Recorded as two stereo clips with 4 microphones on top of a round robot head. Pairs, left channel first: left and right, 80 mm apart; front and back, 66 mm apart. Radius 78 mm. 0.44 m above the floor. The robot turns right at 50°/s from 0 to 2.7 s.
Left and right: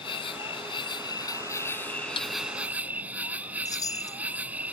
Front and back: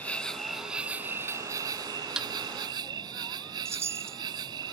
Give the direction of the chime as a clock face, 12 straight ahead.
8 o'clock.